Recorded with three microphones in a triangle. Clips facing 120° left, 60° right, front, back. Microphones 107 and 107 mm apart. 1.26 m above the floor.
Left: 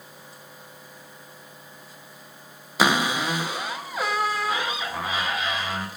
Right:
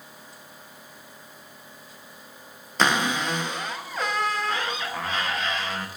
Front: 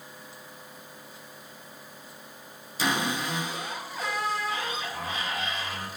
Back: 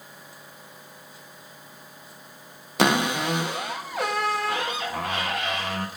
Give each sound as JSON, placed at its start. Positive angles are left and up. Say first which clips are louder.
{"t": 2.8, "sound": "a cupboard door", "louder": "left 1 dB, back 6 dB", "azimuth_deg": -160, "distance_m": 0.7}